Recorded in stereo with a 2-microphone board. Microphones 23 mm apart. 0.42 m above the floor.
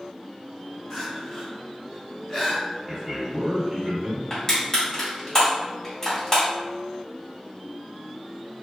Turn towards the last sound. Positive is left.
turn(degrees=20)  # may be behind; listen again after turning